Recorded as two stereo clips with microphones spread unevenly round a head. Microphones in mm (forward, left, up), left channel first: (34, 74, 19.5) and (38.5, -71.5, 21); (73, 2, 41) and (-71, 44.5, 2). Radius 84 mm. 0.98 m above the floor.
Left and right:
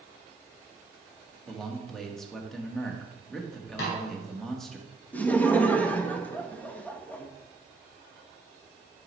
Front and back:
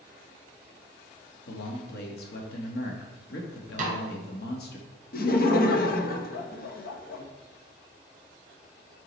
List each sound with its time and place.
1.5 s a man speaking: 5° left, 1.5 m
3.8 s a snare drum: 125° left, 2.5 m
5.1 s laughter: 15° left, 1.1 m